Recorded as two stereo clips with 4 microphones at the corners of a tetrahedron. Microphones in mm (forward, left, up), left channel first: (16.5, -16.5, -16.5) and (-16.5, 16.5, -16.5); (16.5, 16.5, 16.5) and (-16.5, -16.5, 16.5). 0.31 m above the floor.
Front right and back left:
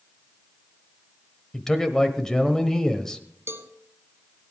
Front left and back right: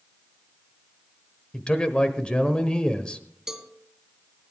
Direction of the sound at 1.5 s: 15° left.